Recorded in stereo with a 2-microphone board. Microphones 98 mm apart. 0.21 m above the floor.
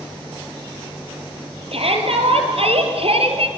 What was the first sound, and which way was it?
A shout, 75° right (ahead or behind).